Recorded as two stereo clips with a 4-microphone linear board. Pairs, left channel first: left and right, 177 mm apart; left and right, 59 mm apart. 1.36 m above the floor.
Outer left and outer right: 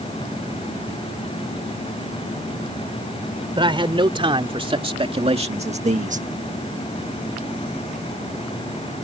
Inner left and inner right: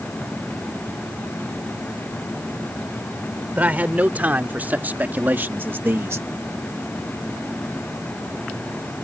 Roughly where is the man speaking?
Right.